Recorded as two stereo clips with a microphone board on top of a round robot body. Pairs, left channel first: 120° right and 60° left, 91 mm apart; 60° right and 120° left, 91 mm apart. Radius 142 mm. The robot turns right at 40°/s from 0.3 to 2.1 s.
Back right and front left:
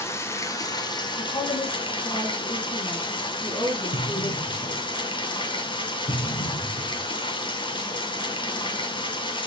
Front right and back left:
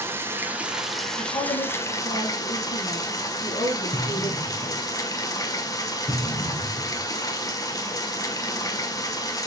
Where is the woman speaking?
105° right, 4.5 m; by 4.8 s 70° right, 4.5 m.